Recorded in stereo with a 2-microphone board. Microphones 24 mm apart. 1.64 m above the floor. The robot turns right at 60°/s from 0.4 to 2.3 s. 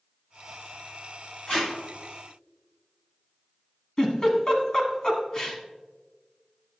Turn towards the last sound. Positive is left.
turn(degrees=30)  # may be behind; listen again after turning